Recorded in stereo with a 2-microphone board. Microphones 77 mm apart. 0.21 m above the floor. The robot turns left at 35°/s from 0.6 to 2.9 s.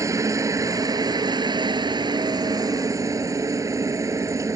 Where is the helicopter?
45° right (ahead or behind); by 4.5 s 40° right (ahead or behind).